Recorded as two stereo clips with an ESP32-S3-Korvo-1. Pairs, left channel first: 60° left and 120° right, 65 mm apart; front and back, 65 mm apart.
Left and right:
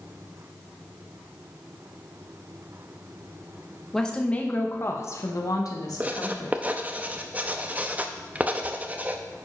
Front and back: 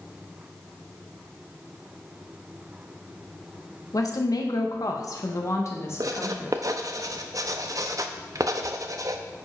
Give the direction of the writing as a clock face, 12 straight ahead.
6 o'clock.